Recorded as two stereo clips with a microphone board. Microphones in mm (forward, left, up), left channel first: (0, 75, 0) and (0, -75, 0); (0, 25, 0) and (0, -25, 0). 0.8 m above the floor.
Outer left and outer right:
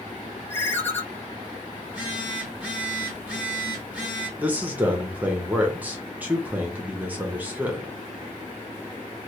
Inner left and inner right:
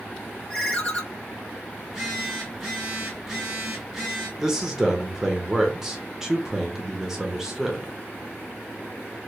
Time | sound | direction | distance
0.5 | a ringtone | 15° left (ahead or behind) | 0.8 m
1.8 | a phone buzzing | 10° right (ahead or behind) | 1.5 m
4.4 | a man speaking | 10° right (ahead or behind) | 0.8 m